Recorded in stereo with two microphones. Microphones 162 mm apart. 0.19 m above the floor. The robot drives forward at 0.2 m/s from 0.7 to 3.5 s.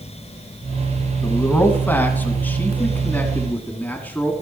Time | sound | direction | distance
1.2 | a man speaking | 10° left (ahead or behind) | 1.4 m